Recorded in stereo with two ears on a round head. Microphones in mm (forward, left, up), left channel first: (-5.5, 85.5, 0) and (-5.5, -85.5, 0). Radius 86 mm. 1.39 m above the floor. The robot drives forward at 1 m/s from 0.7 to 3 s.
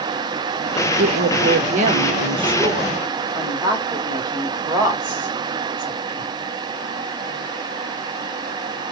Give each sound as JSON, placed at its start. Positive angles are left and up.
{"t": 1.0, "sound": "a woman speaking", "side_deg": -60, "distance_m": 1.0}